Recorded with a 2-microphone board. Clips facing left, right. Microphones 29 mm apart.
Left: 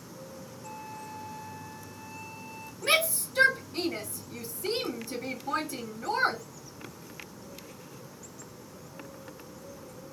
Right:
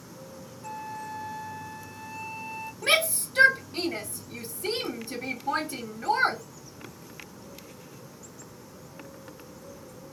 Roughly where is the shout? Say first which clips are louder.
Right 2 dB; right.